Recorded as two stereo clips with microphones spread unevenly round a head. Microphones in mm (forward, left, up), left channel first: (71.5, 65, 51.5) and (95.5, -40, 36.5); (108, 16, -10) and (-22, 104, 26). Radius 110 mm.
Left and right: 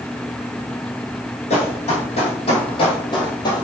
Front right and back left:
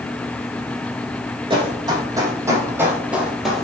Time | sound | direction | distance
1.5 | running footsteps | 90° left | 3.5 m